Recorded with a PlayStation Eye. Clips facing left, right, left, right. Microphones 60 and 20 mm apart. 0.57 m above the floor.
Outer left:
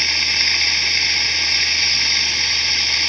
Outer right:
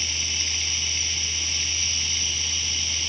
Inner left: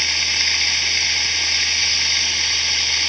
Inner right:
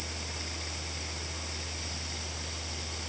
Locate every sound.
0.0 s running water: 70° left (ahead or behind)